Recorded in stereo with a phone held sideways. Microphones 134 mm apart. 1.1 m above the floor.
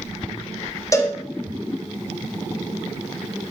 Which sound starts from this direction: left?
A cowbell, at 0.9 s.